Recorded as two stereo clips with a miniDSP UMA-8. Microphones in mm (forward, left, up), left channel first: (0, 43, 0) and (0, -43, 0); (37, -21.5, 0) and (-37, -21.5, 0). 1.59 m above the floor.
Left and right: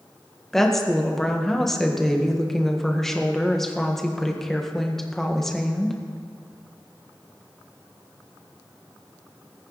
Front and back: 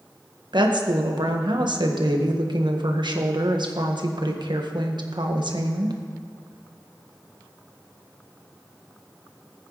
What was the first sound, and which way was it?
A woman speaking, 175° left.